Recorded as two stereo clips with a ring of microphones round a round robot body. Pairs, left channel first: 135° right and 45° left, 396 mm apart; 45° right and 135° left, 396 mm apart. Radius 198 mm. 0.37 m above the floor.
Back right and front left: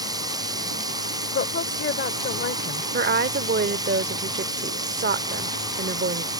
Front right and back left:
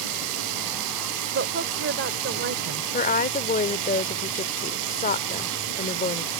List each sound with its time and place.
0.0 s running water: 125° left
1.3 s a woman speaking: 175° left
2.9 s a woman speaking: 5° left